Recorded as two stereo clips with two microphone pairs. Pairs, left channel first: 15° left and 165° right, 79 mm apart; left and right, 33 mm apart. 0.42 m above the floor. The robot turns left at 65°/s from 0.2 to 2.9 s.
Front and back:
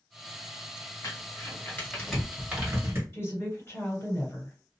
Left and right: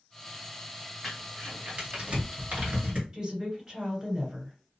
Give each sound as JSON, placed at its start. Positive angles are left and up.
{"t": 1.0, "sound": "crumpling", "azimuth_deg": 0, "distance_m": 1.8}
{"t": 3.1, "sound": "a woman speaking", "azimuth_deg": -30, "distance_m": 2.0}